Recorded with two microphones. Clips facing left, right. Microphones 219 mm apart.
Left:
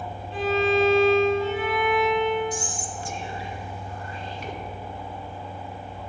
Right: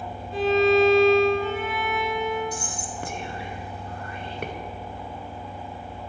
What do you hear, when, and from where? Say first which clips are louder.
0.3 s a violin: right 3 dB; 50° right (ahead or behind), 3 m
2.5 s whispering: left 1 dB; 65° right (ahead or behind), 0.9 m